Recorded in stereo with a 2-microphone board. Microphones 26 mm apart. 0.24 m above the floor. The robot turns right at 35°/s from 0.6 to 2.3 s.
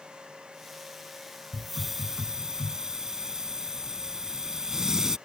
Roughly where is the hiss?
Centre.